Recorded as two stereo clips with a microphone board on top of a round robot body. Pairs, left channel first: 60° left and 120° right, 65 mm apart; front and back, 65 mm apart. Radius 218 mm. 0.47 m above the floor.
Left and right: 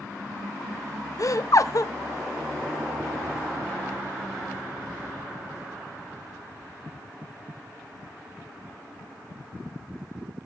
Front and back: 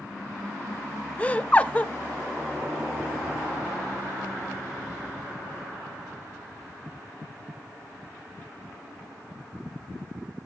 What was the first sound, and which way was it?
Laughter, 65° left.